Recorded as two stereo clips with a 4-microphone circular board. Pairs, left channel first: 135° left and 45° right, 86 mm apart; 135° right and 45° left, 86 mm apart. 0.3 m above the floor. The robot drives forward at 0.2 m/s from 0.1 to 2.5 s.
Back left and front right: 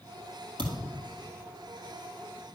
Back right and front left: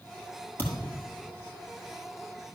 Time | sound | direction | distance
0.6 | a thud | 70° right | 2.0 m